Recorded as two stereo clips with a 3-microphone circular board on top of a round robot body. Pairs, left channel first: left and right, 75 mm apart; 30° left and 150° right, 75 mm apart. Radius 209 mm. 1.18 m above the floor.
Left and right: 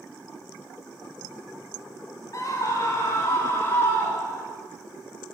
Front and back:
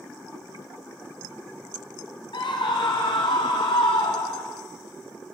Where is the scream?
40° left, 3.5 m; by 4.6 s 25° left, 4 m.